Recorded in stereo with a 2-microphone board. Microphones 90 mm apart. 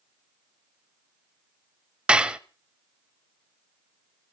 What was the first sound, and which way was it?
Dishes clattering, 10° right (ahead or behind).